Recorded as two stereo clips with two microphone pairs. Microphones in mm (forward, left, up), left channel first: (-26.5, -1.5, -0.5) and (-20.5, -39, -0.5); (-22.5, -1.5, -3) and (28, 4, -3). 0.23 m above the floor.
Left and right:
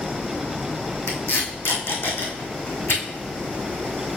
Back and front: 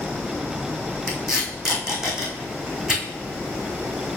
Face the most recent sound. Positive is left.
turn(degrees=85)